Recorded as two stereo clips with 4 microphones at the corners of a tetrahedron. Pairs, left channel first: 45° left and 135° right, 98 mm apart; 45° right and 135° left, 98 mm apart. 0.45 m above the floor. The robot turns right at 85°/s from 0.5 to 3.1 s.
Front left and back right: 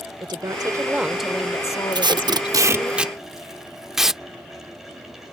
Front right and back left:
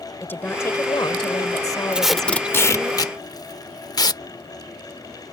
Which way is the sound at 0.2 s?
105° right.